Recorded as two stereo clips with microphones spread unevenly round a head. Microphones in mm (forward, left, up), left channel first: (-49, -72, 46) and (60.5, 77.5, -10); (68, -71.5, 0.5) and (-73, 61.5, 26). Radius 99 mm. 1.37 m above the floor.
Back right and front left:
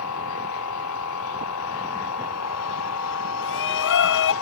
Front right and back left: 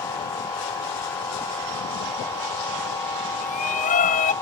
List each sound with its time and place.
0.0 s a machine running: 120° right
3.4 s a shout: 100° right